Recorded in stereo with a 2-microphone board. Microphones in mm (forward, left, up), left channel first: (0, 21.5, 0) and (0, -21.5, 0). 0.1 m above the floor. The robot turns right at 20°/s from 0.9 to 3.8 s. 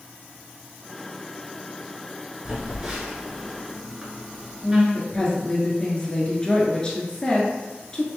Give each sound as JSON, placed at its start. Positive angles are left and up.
{"t": 2.5, "sound": "a phone buzzing", "side_deg": -20, "distance_m": 1.3}
{"t": 4.9, "sound": "a woman speaking", "side_deg": 20, "distance_m": 1.2}